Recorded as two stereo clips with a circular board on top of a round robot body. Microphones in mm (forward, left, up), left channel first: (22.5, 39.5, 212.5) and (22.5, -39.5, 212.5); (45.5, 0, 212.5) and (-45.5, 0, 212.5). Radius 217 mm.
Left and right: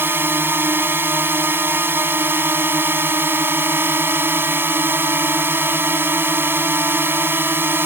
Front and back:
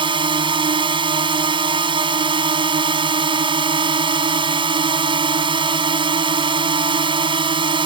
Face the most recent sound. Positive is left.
turn(degrees=-155)